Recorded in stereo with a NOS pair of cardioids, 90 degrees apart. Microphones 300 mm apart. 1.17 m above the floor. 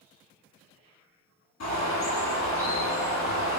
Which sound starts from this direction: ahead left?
A bird, at 1.6 s.